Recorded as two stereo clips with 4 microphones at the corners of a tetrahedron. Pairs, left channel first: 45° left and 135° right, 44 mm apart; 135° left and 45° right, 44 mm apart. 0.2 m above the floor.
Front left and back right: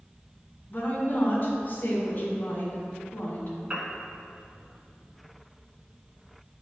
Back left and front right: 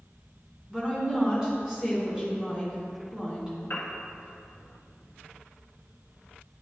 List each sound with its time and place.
0.7 s a woman speaking: 25° left, 1.9 m
3.7 s a piano: 160° left, 1.3 m